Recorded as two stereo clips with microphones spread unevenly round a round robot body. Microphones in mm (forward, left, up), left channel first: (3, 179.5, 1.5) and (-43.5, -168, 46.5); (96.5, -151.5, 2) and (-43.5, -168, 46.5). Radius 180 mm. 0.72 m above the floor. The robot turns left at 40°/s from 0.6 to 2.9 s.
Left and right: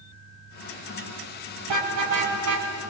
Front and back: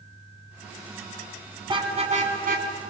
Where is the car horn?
110° right, 3.5 m; by 2.9 s 160° right, 3.5 m.